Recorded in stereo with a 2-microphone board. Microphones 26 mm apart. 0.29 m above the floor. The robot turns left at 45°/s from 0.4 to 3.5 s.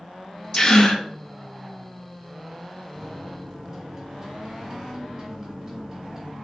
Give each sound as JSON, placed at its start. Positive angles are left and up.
{"t": 0.5, "sound": "a gasp", "side_deg": 20, "distance_m": 0.8}
{"t": 3.0, "sound": "a microwave", "side_deg": -35, "distance_m": 1.4}